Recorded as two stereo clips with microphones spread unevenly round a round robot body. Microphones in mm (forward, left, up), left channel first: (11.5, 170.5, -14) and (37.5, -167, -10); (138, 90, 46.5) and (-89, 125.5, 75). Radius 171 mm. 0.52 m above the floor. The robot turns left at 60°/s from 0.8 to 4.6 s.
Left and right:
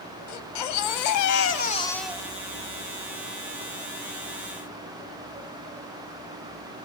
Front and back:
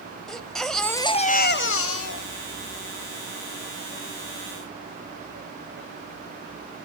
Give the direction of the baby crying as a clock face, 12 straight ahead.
9 o'clock.